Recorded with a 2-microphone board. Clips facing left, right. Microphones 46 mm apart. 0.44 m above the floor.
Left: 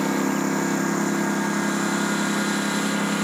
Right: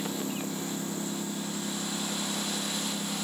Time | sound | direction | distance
0.0 | a lawn mower | 65° left (ahead or behind) | ?